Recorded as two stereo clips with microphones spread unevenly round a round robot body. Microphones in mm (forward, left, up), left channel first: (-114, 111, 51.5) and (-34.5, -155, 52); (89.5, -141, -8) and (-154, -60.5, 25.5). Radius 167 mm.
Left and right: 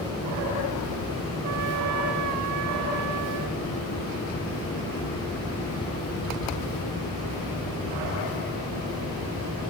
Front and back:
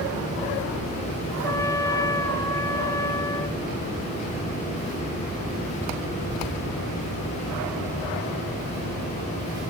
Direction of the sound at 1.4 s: 95° right.